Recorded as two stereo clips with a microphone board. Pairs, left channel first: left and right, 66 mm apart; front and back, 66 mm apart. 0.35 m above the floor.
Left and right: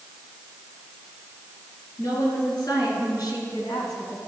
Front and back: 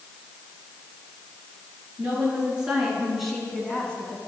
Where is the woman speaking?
110° left, 4.5 m; by 4.2 s 60° left, 2.5 m.